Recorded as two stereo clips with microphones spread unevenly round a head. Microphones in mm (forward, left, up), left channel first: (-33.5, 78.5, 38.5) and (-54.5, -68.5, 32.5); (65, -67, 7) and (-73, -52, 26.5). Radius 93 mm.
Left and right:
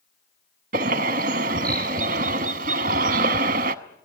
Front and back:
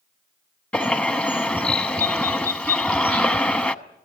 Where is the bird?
90° right, 0.9 m.